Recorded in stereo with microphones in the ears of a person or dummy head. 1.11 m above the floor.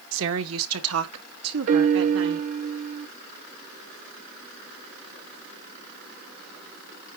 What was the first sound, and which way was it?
A woman speaking, 65° right (ahead or behind).